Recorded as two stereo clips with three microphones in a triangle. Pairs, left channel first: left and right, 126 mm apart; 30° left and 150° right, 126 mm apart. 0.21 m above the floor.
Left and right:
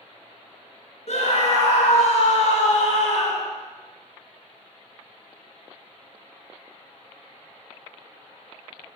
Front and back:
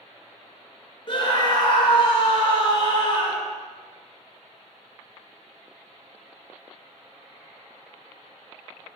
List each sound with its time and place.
1.1 s a scream: 70° left, 2.5 m